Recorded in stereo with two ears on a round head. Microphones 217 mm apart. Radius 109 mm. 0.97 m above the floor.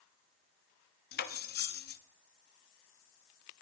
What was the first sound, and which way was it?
Cutlery clinking, 40° left (ahead or behind).